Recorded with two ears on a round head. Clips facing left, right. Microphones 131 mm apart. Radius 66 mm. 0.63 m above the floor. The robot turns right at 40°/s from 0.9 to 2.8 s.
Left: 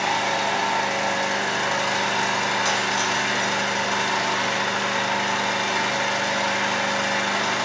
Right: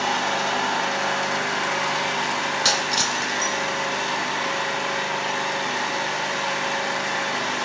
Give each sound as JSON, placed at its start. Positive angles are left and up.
{"t": 0.0, "sound": "an engine running", "azimuth_deg": 15, "distance_m": 2.5}
{"t": 2.6, "sound": "breaking glass", "side_deg": -45, "distance_m": 1.1}